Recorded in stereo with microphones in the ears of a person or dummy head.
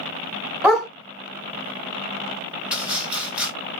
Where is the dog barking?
Centre (ahead or behind), 1.6 m.